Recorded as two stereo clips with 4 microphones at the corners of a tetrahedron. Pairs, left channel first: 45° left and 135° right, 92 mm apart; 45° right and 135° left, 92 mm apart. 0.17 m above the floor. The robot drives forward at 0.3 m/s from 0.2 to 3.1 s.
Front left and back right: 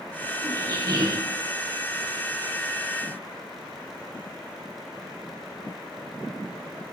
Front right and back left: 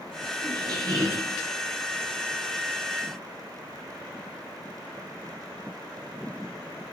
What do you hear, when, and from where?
0.4 s a squeak: 175° left, 0.6 m; by 1.4 s straight behind, 0.8 m